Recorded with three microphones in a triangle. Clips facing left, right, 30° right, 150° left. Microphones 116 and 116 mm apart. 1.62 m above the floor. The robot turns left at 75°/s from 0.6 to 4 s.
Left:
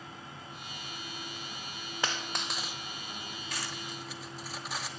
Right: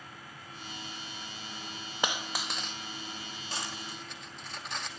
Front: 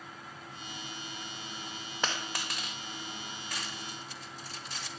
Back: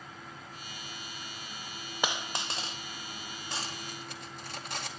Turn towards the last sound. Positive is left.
turn(degrees=175)